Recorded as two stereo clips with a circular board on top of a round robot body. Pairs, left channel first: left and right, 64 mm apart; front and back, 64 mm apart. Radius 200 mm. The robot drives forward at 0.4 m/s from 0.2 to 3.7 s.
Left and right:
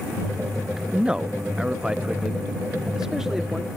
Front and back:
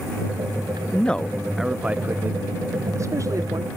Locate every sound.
0.9 s a man speaking: 30° right, 0.7 m; by 3.7 s 170° right, 1.1 m